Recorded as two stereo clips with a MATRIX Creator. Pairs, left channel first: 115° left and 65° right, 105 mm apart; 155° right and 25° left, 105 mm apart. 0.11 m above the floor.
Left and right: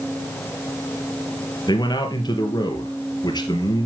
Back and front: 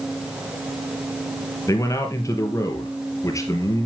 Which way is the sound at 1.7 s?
150° left.